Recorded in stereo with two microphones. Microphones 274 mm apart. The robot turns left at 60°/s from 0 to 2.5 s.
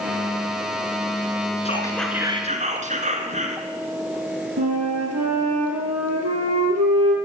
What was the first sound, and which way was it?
Whispering, 25° left.